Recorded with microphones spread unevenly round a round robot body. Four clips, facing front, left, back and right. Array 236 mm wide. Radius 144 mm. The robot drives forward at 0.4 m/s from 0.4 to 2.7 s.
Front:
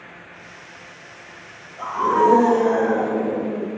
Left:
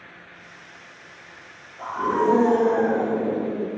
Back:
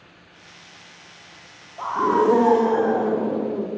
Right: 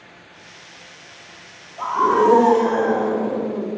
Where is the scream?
130° right, 1.4 m; by 3.7 s 140° right, 1.6 m.